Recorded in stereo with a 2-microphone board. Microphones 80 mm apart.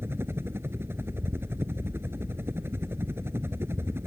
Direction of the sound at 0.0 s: 30° right (ahead or behind).